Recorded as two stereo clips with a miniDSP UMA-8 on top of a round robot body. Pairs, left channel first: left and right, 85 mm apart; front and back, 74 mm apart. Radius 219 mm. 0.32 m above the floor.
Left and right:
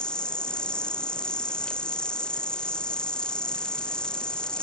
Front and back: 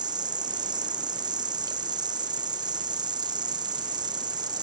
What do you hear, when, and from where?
0.0 s an insect: 170° left